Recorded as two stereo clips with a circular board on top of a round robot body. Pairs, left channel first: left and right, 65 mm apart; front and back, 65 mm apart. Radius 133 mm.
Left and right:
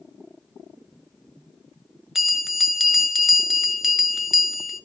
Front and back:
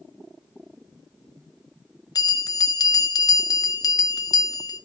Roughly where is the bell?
Ahead.